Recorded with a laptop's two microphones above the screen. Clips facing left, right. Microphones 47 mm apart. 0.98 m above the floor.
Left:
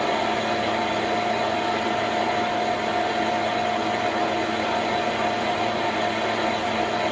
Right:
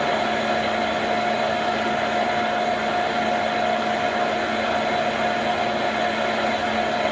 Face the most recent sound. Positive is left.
turn(degrees=-25)  # may be behind; listen again after turning